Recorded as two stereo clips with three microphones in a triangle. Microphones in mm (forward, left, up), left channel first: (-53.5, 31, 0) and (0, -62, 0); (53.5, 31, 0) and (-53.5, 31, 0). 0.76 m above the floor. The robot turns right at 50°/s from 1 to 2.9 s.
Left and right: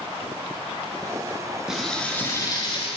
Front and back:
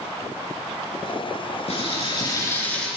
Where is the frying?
25° left, 9.5 m; by 2.9 s 85° left, 9.5 m.